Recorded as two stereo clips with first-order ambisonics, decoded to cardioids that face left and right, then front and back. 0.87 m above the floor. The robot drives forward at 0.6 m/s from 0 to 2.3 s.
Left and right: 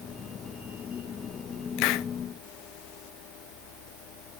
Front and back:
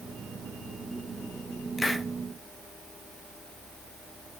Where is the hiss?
80° left, 0.5 m; by 2.1 s 100° left, 0.5 m.